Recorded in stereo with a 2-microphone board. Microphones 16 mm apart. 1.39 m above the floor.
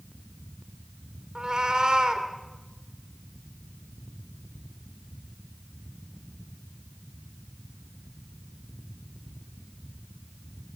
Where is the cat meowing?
60° right (ahead or behind), 2.5 m.